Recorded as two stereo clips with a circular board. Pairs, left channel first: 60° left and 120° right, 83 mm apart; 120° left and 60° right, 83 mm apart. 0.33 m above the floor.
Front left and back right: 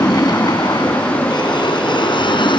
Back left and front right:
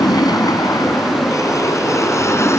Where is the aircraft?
90° left; by 2.6 s 65° left.